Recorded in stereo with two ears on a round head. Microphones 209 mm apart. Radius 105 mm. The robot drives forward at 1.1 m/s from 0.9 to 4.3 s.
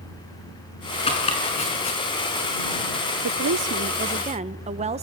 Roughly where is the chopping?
Left.